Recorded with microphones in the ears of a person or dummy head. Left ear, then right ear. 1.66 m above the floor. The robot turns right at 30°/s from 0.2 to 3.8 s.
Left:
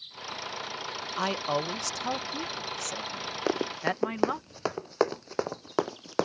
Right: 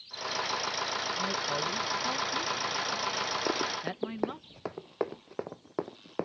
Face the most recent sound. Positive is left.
turn(degrees=55)  # may be behind; listen again after turning